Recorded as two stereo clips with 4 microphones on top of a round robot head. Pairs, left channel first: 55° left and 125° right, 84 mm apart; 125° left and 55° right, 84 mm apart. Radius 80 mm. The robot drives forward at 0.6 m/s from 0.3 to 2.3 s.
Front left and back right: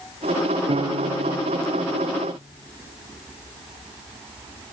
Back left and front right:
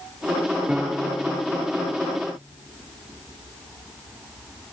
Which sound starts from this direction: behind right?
A piano, at 0.7 s.